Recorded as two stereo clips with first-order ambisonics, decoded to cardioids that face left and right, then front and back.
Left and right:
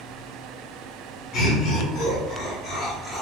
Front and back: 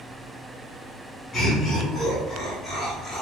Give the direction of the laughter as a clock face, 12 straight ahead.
10 o'clock.